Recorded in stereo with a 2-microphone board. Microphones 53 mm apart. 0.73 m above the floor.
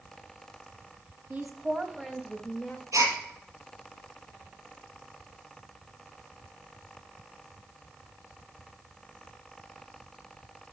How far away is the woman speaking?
About 1.2 m.